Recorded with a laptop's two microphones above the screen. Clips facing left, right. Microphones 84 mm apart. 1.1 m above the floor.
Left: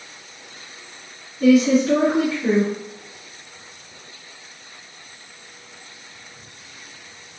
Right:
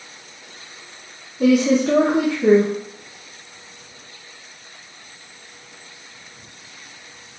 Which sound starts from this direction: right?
A woman speaking, at 1.4 s.